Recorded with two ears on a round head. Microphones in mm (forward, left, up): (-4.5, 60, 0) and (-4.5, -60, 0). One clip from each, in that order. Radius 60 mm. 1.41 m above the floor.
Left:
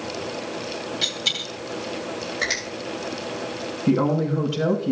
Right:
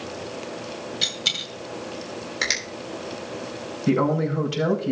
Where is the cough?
I don't hear a cough.